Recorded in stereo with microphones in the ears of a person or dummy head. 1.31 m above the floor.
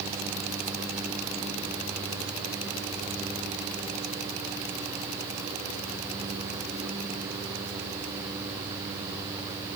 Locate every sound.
Only background noise.